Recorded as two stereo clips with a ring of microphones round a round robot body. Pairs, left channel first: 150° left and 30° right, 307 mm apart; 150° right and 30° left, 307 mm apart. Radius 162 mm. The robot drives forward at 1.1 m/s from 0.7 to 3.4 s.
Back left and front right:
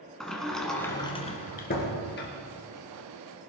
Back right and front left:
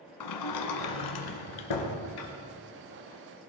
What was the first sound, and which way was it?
A sliding door, 120° right.